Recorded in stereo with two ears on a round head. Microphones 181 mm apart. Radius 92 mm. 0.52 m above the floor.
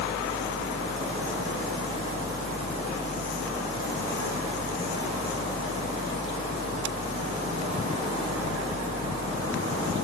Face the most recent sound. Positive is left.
No sound to turn to.